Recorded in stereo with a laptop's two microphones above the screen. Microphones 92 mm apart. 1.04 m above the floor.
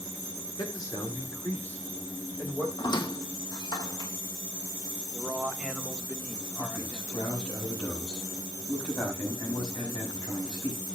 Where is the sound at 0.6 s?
55° left (ahead or behind), 2.5 m; by 2.7 s 5° left (ahead or behind), 4 m.